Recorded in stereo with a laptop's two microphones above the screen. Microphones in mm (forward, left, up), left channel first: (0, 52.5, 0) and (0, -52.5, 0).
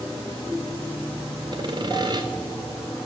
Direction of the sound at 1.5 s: 40° right (ahead or behind).